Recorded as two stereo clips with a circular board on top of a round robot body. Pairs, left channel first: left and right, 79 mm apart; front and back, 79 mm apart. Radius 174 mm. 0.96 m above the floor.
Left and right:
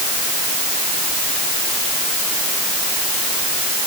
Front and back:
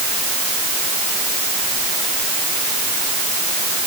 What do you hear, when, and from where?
Only background noise.